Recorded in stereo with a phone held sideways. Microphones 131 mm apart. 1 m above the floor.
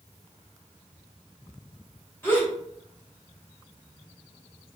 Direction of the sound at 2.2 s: 20° left (ahead or behind).